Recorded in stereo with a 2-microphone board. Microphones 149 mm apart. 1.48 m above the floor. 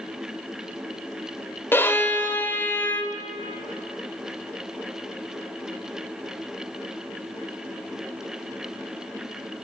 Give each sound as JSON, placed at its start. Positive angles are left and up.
{"t": 1.7, "sound": "a violin", "side_deg": 15, "distance_m": 1.3}